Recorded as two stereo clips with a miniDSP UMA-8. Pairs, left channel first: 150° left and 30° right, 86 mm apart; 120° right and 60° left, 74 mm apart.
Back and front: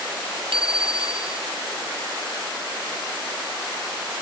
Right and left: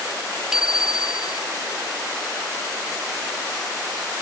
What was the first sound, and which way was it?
A bicycle bell, 20° right.